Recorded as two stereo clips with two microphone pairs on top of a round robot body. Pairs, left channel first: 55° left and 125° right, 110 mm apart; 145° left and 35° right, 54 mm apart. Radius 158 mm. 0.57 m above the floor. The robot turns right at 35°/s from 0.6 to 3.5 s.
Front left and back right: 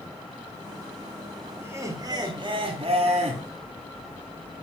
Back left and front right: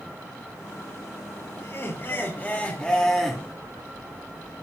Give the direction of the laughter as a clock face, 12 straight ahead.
6 o'clock.